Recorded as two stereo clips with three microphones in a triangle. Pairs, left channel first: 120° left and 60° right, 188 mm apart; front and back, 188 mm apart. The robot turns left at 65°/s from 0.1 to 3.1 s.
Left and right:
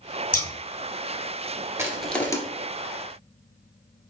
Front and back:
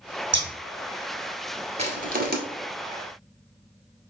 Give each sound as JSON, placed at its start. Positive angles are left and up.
{"t": 0.3, "sound": "scissors", "azimuth_deg": 165, "distance_m": 0.9}
{"t": 1.8, "sound": "crushing", "azimuth_deg": -130, "distance_m": 1.2}